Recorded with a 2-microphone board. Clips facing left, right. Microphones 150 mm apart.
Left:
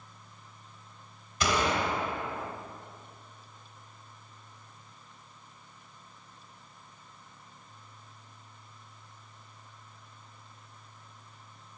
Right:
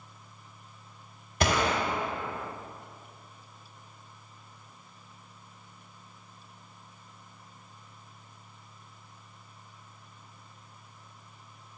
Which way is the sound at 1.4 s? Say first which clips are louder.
Right 1 dB; 55° right (ahead or behind).